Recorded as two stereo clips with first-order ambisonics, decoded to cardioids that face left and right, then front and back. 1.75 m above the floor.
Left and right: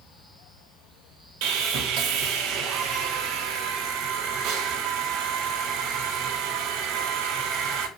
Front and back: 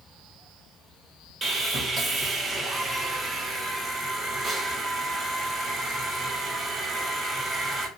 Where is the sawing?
110° right, 0.8 m.